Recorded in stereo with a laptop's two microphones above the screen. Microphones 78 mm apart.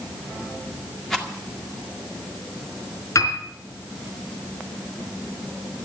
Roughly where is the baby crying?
I don't hear a baby crying.